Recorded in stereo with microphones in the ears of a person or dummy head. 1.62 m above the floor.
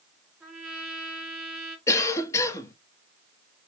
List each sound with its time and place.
0.4 s a trumpet: centre (ahead or behind), 1.8 m
1.9 s a cough: 15° left (ahead or behind), 0.7 m